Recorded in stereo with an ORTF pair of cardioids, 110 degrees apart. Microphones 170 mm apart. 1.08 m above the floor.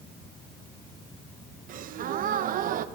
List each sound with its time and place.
1.7 s a gasp: 55° right, 0.6 m